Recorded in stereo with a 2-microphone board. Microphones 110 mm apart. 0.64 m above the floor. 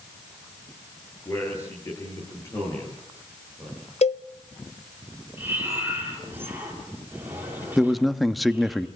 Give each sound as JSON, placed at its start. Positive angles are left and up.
{"t": 1.2, "sound": "a man speaking", "side_deg": 25, "distance_m": 9.0}
{"t": 4.0, "sound": "a cowbell", "side_deg": 75, "distance_m": 0.8}
{"t": 5.4, "sound": "breathing", "side_deg": -20, "distance_m": 7.0}
{"t": 7.8, "sound": "a man speaking", "side_deg": 0, "distance_m": 0.9}